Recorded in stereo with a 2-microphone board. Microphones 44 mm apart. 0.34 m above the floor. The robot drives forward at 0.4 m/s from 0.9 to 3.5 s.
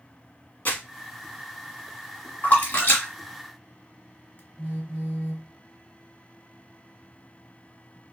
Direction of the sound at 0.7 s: 45° left (ahead or behind).